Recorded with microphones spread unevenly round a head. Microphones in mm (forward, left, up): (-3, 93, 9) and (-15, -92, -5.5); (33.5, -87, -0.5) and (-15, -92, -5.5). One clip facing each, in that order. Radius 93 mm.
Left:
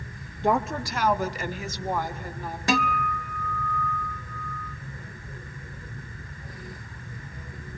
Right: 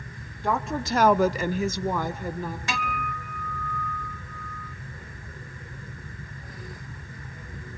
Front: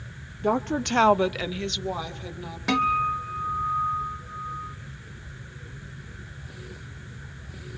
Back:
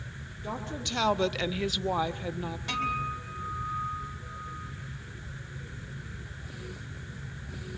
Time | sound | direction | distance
0.4 | a woman speaking | 20° left | 0.7 m
2.7 | a guitar | 30° left | 0.8 m